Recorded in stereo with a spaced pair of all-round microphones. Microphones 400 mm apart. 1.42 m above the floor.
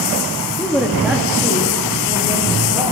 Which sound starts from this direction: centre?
A woman speaking, at 0.6 s.